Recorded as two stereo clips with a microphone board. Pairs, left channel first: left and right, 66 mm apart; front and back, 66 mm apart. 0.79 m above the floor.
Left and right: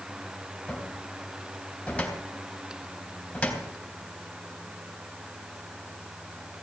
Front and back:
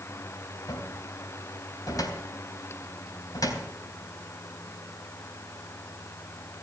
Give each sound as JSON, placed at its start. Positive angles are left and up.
{"t": 0.7, "sound": "a cupboard door", "azimuth_deg": 15, "distance_m": 3.5}